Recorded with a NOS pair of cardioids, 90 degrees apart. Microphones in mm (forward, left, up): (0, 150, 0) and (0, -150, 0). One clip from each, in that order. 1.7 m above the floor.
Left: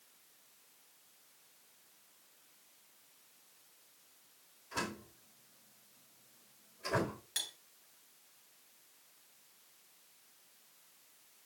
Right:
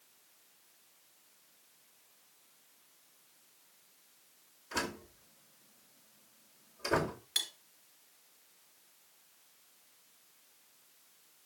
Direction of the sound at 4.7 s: 65° right.